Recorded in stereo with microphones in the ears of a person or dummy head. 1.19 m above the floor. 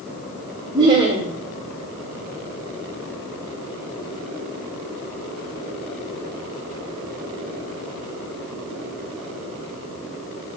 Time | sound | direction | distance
0.7 | laughter | 25° right (ahead or behind) | 0.8 m